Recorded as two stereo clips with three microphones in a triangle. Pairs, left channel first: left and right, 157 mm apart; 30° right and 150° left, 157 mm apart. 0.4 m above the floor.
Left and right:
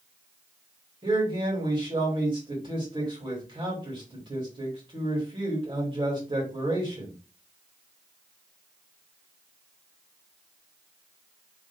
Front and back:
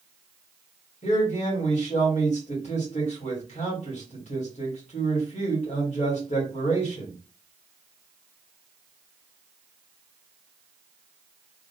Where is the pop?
I don't hear a pop.